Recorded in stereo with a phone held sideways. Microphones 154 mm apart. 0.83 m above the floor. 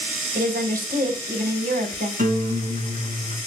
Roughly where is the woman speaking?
Right.